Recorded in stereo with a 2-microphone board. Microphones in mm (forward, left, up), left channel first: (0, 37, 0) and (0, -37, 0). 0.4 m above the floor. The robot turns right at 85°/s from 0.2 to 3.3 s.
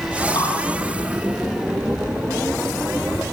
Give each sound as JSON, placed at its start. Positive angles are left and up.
{"t": 0.3, "sound": "dripping", "side_deg": 75, "distance_m": 9.0}